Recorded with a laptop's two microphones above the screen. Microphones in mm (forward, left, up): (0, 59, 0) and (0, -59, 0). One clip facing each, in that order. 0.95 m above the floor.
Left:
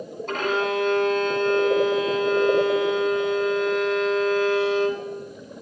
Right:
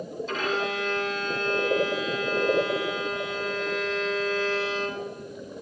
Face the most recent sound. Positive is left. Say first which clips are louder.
# left 5 dB
turn(degrees=55)  # may be behind; listen again after turning